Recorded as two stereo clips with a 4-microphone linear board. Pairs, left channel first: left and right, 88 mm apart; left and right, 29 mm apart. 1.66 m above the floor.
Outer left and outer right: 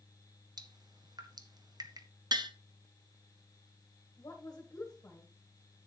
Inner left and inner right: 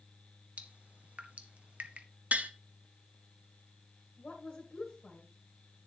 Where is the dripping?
50° right (ahead or behind), 0.8 m.